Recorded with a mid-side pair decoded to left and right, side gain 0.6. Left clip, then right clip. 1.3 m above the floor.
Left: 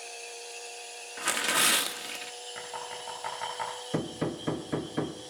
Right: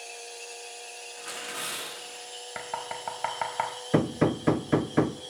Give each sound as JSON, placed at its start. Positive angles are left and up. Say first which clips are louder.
{"t": 1.2, "sound": "tearing paper", "louder": "left 10 dB", "azimuth_deg": 60, "distance_m": 1.4}
{"t": 2.5, "sound": "knocking", "louder": "right 5 dB", "azimuth_deg": -50, "distance_m": 5.0}
{"t": 3.9, "sound": "hammering", "louder": "right 9 dB", "azimuth_deg": -40, "distance_m": 0.6}